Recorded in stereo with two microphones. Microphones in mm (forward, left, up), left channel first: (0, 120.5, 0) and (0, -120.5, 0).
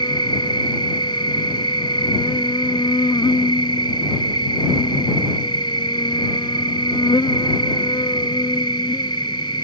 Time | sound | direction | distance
0.0 | an insect | 20° left (ahead or behind) | ?